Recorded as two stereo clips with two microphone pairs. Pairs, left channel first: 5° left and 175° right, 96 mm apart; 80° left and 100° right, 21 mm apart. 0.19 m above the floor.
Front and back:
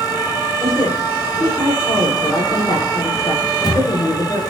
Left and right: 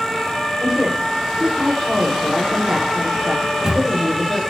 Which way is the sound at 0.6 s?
45° right.